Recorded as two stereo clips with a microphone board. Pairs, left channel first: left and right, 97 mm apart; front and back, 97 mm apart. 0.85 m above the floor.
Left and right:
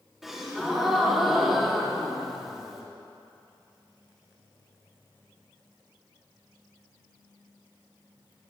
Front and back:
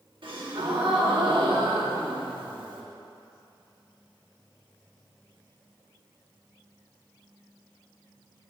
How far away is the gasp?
About 1.6 m.